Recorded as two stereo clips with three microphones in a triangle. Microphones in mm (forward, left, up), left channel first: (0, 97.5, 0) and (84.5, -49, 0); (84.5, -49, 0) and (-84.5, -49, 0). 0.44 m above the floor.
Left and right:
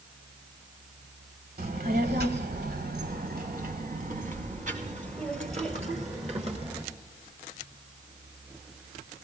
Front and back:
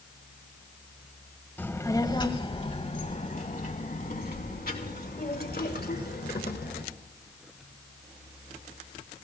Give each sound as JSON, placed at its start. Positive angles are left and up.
{"t": 1.6, "sound": "a child speaking", "azimuth_deg": -80, "distance_m": 1.4}